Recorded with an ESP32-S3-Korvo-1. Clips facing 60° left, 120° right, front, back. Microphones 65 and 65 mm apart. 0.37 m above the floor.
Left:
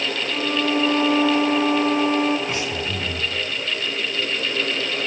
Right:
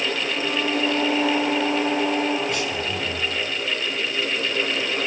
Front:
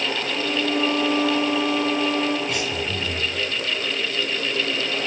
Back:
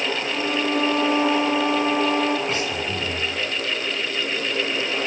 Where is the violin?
120° left, 4 m.